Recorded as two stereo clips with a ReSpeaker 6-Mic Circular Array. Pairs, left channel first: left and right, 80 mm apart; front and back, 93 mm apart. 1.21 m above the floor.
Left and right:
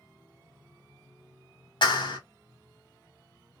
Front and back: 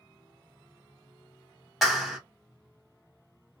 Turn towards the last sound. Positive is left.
turn(degrees=90)